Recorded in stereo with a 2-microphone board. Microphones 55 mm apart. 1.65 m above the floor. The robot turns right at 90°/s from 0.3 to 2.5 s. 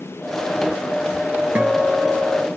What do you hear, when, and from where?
1.6 s a guitar: 30° right, 0.6 m; by 2.5 s 50° left, 0.6 m